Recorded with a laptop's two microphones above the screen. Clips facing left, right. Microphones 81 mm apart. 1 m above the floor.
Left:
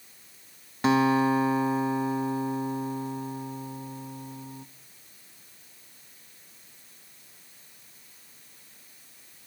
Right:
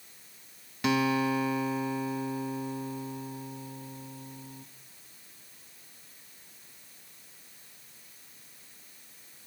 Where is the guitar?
30° left (ahead or behind), 1.1 m.